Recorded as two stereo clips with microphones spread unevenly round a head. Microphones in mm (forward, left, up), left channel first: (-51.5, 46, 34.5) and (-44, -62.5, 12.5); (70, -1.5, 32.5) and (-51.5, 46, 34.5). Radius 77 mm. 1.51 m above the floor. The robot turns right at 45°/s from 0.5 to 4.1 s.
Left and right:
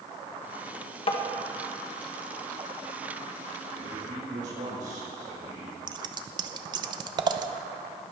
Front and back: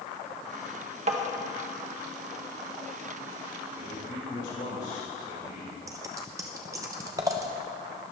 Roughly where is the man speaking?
Right.